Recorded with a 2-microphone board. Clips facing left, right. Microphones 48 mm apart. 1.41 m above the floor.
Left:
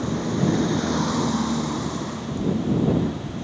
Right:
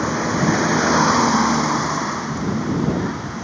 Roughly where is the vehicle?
Right.